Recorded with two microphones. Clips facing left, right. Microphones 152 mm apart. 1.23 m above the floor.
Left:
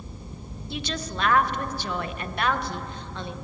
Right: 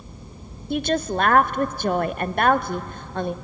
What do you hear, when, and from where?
0.7 s a woman speaking: 50° right (ahead or behind), 0.6 m